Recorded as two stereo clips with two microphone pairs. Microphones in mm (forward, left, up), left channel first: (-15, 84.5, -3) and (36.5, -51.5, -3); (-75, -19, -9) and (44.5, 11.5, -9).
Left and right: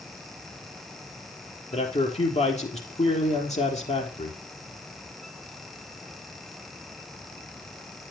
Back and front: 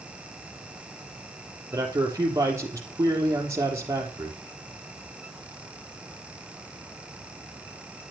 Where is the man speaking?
75° left, 3 m.